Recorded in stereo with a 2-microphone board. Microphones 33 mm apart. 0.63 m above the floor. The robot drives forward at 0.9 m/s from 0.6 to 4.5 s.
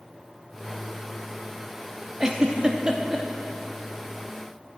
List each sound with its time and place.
2.2 s a giggle: 20° right (ahead or behind), 0.6 m; by 3.3 s 15° right (ahead or behind), 0.8 m